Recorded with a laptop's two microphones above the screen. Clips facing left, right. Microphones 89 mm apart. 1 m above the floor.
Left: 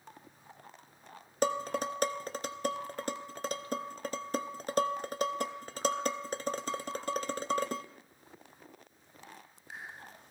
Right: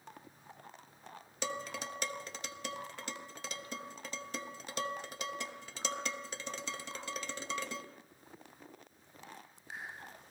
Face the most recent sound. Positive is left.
turn(degrees=45)  # may be behind; listen again after turning